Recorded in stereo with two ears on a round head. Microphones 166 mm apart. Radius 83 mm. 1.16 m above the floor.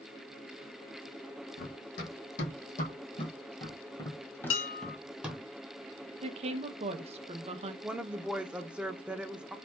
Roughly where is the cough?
No cough in this recording.